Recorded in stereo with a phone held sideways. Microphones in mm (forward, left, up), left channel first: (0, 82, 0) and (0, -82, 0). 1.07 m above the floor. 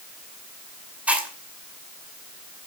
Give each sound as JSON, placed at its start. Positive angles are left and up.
{"t": 1.1, "sound": "chewing", "side_deg": -10, "distance_m": 2.5}